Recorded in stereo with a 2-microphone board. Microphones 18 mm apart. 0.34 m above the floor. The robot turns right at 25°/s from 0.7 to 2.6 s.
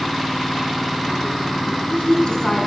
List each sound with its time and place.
1.7 s a woman speaking: 60° left (ahead or behind), 3.5 m; by 2.7 s 40° left (ahead or behind), 3.5 m